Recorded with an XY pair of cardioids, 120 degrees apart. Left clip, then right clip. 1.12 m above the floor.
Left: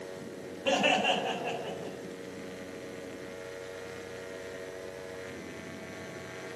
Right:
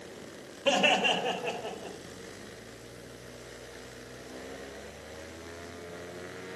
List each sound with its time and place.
0.7 s laughter: 20° right, 2 m; by 2.0 s 15° right, 3.5 m